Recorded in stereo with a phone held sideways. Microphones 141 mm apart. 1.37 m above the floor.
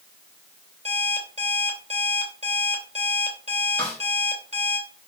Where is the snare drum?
10° left (ahead or behind), 3 m.